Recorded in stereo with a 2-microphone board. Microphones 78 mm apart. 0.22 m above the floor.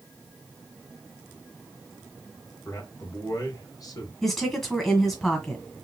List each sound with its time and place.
2.6 s a man speaking: 50° left (ahead or behind), 2.5 m
4.2 s a woman speaking: 10° left (ahead or behind), 1.6 m